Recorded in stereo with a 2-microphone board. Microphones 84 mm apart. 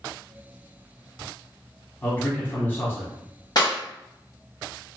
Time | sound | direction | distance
2.0 | a man speaking | 25° left (ahead or behind) | 1.3 m
3.5 | a clap | 50° left (ahead or behind) | 1.8 m